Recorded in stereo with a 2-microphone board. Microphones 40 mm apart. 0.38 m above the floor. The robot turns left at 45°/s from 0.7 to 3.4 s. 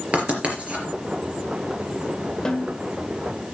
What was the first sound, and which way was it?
Writing, 30° right (ahead or behind).